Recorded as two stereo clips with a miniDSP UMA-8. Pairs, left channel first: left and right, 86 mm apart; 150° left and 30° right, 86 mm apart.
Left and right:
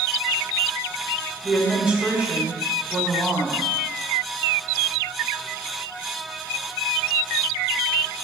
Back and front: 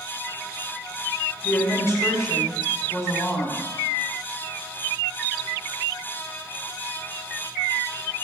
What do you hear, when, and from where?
1.4 s a woman speaking: 165° right, 2.5 m